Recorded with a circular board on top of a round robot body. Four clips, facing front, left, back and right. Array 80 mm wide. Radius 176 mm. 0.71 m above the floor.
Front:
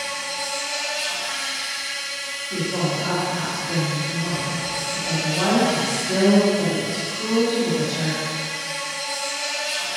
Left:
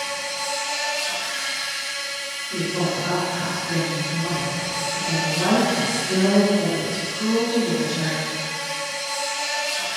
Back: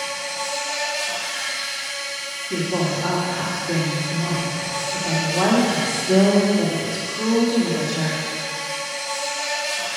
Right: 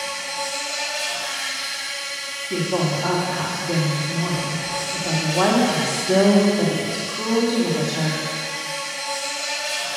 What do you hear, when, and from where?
0.0 s an insect: 170° left, 5.5 m
2.5 s a woman speaking: 135° right, 3 m